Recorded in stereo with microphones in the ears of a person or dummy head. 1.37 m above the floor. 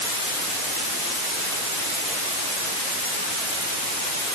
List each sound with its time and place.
Only background noise.